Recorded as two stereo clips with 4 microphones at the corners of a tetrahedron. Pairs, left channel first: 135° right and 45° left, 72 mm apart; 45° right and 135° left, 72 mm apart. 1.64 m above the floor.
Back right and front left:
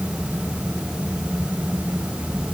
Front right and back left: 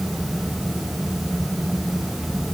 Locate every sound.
Only background noise.